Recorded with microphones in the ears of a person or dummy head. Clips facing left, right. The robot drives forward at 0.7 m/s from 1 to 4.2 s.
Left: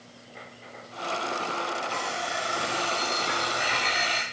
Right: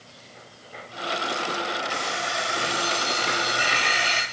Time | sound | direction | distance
1.9 | an alarm clock | 5° right (ahead or behind) | 4 m